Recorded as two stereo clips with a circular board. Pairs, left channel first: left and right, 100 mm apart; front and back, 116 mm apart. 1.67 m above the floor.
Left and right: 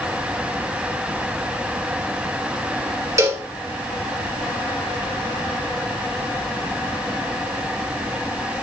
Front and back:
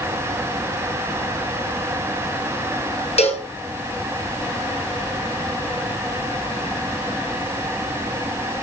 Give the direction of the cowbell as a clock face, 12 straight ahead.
1 o'clock.